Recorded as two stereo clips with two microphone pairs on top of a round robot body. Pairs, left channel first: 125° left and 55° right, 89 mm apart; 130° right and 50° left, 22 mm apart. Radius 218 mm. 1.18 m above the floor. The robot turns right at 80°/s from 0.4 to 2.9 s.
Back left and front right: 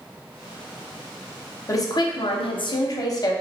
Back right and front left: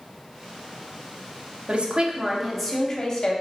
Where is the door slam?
I don't hear a door slam.